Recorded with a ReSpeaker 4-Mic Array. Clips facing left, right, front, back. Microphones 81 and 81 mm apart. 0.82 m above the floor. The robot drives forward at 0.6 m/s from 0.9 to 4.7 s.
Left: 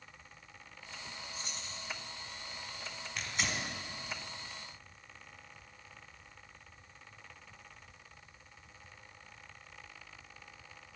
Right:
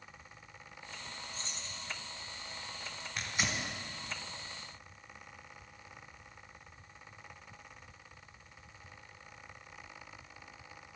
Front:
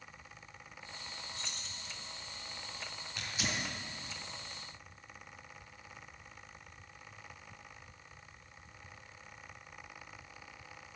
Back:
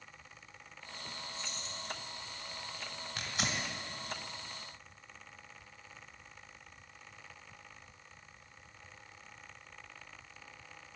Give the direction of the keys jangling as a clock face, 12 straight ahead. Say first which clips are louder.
Even, back 3 dB; 12 o'clock.